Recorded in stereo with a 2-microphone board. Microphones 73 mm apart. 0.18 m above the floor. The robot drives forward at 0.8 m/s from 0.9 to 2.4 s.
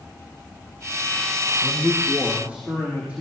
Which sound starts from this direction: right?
A man speaking, at 1.6 s.